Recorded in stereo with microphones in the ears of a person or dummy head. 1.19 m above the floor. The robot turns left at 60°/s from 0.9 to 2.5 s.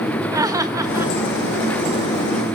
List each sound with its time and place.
0.3 s laughter: 20° right (ahead or behind), 1.3 m; by 1.1 s 5° right (ahead or behind), 1.3 m